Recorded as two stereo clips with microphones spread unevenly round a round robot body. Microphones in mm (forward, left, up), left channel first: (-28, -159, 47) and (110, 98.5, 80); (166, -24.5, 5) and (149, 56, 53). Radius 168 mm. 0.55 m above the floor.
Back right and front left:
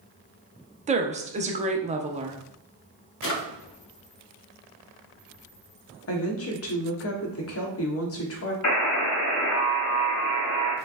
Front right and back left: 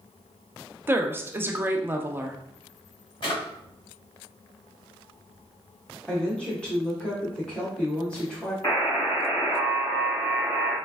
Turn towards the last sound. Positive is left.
turn(degrees=-160)